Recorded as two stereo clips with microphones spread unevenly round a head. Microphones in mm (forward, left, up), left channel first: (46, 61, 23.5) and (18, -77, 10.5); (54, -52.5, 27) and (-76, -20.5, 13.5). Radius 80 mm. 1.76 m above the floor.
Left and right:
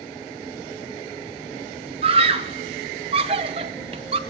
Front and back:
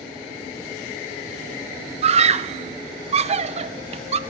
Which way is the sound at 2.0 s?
155° right.